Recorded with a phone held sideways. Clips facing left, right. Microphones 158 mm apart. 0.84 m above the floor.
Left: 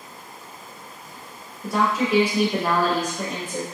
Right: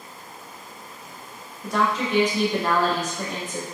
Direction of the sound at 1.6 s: 5° left (ahead or behind).